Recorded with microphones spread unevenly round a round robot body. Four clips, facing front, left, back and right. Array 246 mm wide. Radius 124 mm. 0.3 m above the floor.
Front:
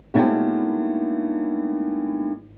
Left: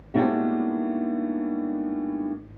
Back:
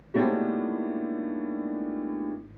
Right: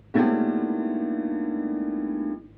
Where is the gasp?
No gasp in this recording.